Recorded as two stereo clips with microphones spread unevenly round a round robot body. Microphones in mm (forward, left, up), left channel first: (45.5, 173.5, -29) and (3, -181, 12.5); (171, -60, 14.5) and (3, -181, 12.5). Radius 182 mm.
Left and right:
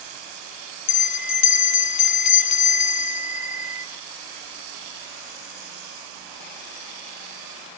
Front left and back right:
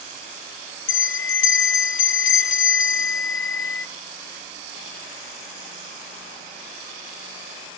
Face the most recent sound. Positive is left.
turn(degrees=55)